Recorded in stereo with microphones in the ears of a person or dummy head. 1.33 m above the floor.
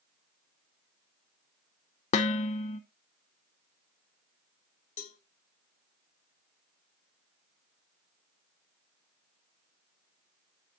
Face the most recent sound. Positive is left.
turn(degrees=45)  # may be behind; listen again after turning